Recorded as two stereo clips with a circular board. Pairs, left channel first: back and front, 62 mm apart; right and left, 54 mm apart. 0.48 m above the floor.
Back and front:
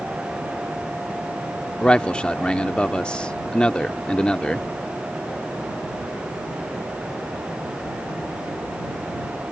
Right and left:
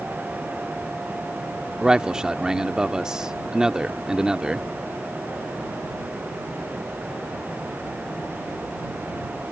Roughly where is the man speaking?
Behind left.